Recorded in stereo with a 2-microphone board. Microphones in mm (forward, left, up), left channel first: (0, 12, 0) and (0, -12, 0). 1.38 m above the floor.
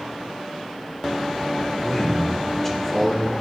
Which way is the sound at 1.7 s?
10° left (ahead or behind).